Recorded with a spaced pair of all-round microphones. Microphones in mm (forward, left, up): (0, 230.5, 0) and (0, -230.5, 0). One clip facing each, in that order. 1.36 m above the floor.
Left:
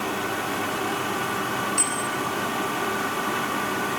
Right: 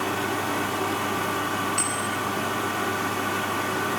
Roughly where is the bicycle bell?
Left.